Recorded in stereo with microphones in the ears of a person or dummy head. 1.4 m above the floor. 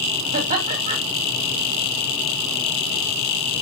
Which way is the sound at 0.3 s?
45° right (ahead or behind).